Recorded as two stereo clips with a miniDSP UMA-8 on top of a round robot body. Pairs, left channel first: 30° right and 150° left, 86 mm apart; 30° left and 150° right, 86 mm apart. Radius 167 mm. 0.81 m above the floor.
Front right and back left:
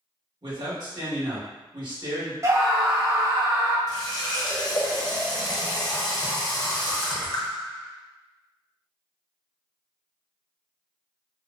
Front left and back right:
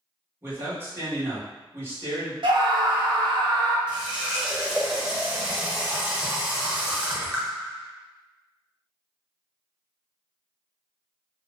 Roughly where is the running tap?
Right.